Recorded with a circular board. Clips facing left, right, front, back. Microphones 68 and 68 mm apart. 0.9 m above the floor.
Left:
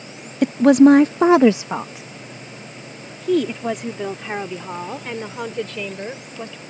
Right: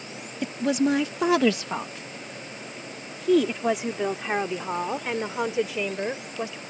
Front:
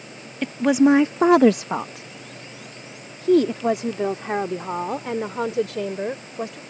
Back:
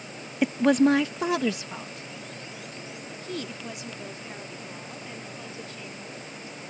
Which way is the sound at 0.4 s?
105° left.